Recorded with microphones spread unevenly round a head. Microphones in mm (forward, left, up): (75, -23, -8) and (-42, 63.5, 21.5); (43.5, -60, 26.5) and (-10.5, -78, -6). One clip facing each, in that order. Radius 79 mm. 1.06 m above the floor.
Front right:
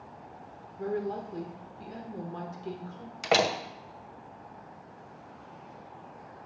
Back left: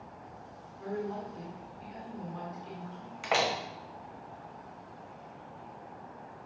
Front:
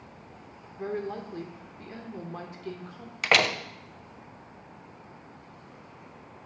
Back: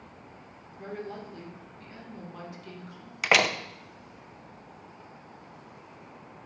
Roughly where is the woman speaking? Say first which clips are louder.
Front right 4 dB, front 5 dB; ahead right.